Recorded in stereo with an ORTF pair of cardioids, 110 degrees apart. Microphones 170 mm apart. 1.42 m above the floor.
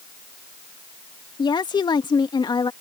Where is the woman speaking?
25° left.